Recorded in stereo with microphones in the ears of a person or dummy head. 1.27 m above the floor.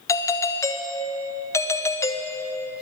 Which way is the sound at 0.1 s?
15° left (ahead or behind).